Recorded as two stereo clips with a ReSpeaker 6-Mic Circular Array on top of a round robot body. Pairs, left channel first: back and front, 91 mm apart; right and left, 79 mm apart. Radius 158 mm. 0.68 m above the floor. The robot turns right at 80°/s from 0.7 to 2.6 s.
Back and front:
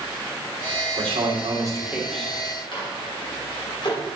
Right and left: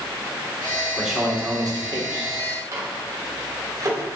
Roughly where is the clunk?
No clunk in this recording.